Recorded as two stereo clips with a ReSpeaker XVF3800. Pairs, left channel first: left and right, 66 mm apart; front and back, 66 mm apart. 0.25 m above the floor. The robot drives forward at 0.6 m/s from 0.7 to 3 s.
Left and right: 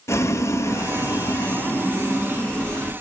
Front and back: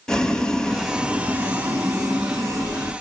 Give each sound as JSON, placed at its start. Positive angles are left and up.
{"t": 0.1, "sound": "boiling", "azimuth_deg": 75, "distance_m": 0.5}